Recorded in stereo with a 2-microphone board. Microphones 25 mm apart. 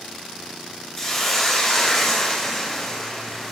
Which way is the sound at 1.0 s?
15° left (ahead or behind).